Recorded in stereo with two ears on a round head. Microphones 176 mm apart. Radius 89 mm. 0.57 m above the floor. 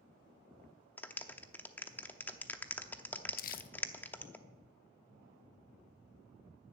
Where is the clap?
10° left (ahead or behind), 0.7 m.